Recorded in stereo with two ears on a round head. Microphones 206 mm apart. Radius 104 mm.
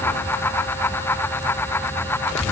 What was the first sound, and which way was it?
Only background noise.